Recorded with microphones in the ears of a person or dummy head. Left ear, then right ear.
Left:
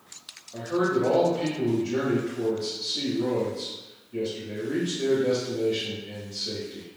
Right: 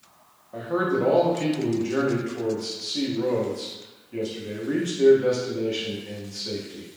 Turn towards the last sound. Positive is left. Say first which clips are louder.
# right 1 dB
turn(degrees=-60)  # may be behind; listen again after turning